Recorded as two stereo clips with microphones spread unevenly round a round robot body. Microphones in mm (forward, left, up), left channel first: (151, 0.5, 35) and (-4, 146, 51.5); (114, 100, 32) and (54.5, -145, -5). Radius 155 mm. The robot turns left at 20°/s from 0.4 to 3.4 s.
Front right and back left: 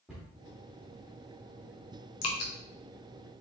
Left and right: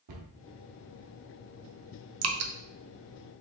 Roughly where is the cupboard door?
Behind right.